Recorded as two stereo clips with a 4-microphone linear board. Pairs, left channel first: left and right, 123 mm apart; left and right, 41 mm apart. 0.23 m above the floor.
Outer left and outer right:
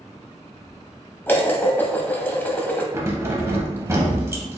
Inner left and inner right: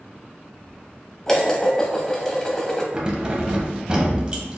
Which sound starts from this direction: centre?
Dishes clattering, at 1.3 s.